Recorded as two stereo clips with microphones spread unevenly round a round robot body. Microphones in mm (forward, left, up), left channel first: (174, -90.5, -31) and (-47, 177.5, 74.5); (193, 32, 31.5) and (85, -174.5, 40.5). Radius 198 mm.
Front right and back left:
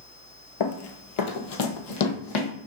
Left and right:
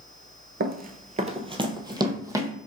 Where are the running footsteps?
80° right, 0.5 m; by 2.5 s 40° right, 1.3 m.